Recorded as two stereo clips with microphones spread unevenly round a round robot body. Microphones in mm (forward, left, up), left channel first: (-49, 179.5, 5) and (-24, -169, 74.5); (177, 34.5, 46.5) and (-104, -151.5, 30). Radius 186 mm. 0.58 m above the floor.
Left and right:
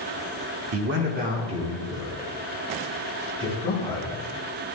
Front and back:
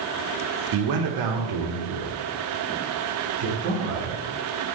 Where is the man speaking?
140° right, 1.2 m; by 4.2 s 165° left, 3 m.